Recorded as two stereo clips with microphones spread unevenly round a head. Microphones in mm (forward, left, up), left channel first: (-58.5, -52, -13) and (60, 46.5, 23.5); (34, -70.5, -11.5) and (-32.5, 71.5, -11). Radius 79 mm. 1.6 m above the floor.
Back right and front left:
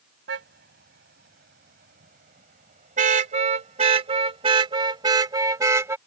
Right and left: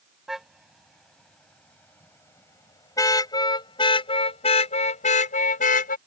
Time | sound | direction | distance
0.3 | a car horn | 25° left | ?